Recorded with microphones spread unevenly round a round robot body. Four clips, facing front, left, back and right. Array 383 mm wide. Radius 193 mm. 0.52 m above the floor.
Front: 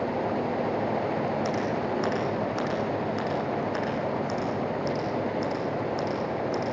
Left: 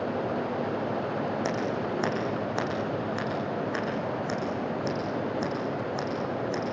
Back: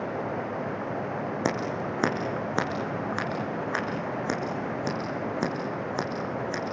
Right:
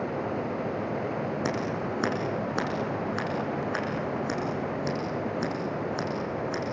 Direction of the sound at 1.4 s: 155° right.